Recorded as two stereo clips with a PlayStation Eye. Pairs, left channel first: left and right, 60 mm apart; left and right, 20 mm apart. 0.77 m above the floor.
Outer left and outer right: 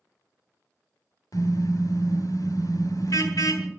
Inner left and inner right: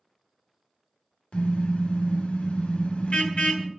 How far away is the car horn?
About 2.5 m.